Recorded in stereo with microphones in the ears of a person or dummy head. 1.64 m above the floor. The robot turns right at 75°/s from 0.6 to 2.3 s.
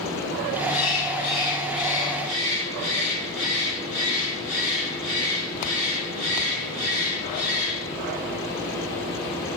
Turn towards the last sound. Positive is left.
turn(degrees=-145)